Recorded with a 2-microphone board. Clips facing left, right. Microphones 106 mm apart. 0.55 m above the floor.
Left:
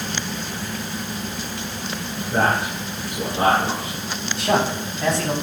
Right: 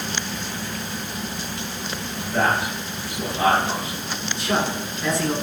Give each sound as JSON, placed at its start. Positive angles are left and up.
{"t": 2.3, "sound": "a man speaking", "side_deg": 45, "distance_m": 9.5}
{"t": 4.4, "sound": "a man speaking", "side_deg": 70, "distance_m": 4.5}